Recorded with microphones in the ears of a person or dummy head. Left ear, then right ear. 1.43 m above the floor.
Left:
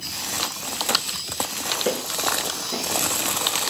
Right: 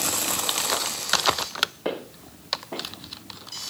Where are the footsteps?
50° right (ahead or behind), 3.5 m.